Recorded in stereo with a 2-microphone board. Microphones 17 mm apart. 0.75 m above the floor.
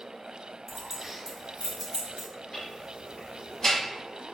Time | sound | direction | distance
0.7 | keys jangling | 10° right (ahead or behind) | 0.5 m
2.5 | ticking | 35° left (ahead or behind) | 1.2 m